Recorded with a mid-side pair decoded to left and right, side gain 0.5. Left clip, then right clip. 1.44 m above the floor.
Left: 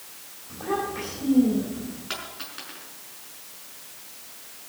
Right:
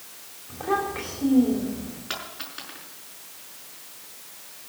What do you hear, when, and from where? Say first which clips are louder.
0.5 s a child speaking: right 2 dB; 25° right, 3.5 m
2.1 s a dropped coin: right 1 dB; 10° right, 5.5 m